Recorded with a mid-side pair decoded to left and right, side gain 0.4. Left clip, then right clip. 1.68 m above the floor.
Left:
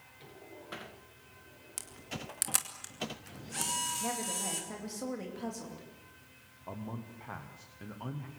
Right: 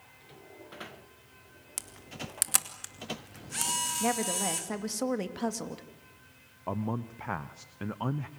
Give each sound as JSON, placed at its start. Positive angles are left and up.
{"t": 1.8, "sound": "a camera shutter", "azimuth_deg": -30, "distance_m": 2.5}
{"t": 4.0, "sound": "a woman speaking", "azimuth_deg": -65, "distance_m": 2.5}
{"t": 6.7, "sound": "a man speaking", "azimuth_deg": -65, "distance_m": 1.0}